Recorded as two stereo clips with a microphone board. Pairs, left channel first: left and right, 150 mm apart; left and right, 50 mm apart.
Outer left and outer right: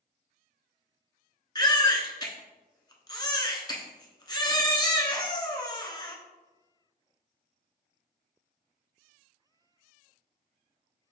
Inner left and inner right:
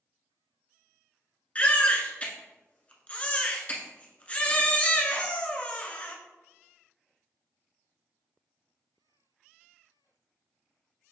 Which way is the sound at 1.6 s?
25° left (ahead or behind).